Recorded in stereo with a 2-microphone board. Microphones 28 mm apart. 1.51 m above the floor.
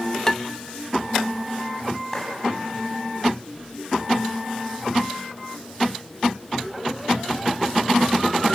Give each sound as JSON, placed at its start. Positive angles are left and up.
{"t": 0.3, "sound": "dishes clattering", "side_deg": 20, "distance_m": 0.6}
{"t": 2.1, "sound": "a clap", "side_deg": 15, "distance_m": 9.0}